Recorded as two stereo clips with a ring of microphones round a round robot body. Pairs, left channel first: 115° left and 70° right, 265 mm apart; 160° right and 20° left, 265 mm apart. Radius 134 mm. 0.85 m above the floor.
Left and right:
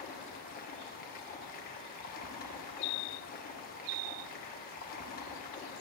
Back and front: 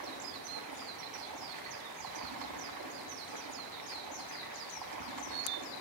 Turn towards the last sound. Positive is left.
turn(degrees=50)